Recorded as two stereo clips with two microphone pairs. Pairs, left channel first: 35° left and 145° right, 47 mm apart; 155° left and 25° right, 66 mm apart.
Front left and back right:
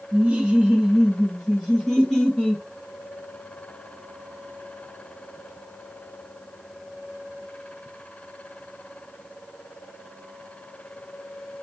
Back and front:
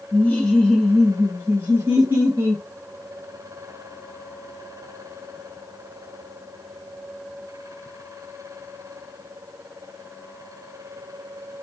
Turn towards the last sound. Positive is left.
turn(degrees=-35)